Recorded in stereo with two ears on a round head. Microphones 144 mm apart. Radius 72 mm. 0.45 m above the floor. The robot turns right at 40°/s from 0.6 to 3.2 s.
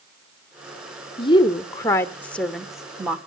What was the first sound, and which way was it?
A woman speaking, 120° left.